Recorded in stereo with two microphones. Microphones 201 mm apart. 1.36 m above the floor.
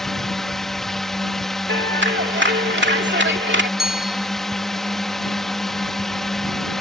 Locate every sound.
0.0 s a drone: centre (ahead or behind)
1.7 s a clap: 65° right (ahead or behind)
3.8 s a bicycle bell: 5° right (ahead or behind)